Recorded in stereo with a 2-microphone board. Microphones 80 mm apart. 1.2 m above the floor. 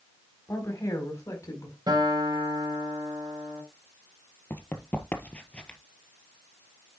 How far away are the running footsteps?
About 1.4 m.